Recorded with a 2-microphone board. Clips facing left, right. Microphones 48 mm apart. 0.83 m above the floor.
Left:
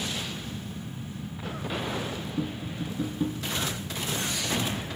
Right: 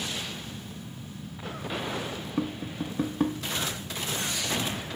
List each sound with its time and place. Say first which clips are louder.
2.4 s tapping: right 4 dB; 80° right, 0.6 m